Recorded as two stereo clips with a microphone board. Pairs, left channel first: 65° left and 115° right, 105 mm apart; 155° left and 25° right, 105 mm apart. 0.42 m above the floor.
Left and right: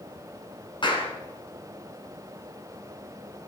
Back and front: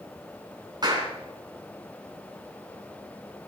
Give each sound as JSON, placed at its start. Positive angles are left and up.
{"t": 0.8, "sound": "a clap", "azimuth_deg": 25, "distance_m": 4.0}